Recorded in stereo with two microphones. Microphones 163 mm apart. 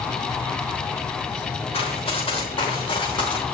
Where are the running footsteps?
35° left (ahead or behind), 6.5 m; by 3.4 s 30° left (ahead or behind), 5.5 m.